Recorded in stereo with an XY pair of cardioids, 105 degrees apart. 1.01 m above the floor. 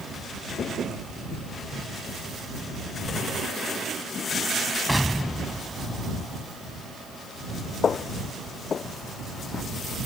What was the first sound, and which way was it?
An explosion, straight ahead.